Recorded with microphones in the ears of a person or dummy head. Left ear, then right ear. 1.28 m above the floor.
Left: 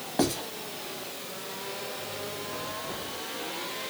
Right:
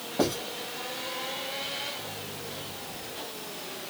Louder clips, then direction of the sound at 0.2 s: Even; 25° left (ahead or behind).